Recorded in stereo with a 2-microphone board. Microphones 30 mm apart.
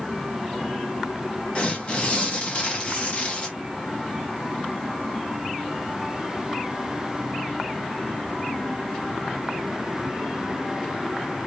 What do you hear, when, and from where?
1.6 s tearing paper: 40° left (ahead or behind), 1.4 m